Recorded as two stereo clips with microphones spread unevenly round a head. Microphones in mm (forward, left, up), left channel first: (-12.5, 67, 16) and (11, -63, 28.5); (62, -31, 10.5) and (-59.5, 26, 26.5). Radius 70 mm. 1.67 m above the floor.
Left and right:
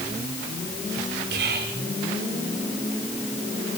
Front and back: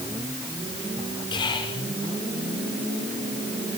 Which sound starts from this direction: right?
Whispering, at 1.3 s.